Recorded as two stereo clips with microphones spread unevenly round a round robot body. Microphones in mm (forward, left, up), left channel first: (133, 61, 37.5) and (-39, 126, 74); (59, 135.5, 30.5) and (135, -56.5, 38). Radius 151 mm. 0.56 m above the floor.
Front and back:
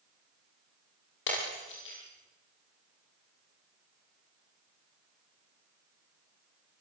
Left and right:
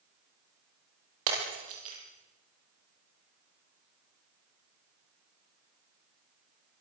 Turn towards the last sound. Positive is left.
turn(degrees=-60)